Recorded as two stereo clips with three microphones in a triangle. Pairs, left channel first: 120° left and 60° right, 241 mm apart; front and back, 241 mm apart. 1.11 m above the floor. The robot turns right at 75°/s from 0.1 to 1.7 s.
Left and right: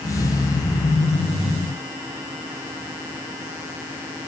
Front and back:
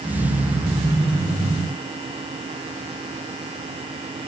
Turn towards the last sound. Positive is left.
No sound to turn to.